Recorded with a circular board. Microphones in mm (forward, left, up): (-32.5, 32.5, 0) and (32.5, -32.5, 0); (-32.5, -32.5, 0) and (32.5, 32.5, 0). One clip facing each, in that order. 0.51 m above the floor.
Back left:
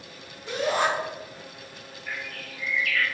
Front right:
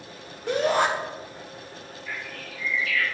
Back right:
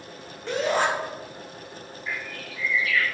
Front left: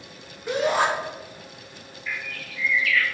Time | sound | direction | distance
0.5 | a shout | 35° right | 1.9 m
2.1 | a bird | 160° left | 2 m